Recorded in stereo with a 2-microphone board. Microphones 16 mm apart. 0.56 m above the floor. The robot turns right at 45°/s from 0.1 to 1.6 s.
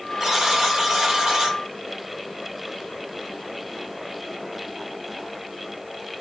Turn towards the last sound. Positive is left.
turn(degrees=-80)